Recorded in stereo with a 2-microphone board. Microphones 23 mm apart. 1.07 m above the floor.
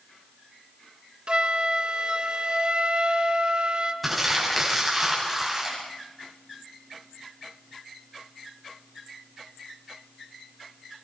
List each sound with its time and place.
1.3 s a flute: 50° right (ahead or behind), 1.3 m
4.0 s crumpling: 5° right (ahead or behind), 8 m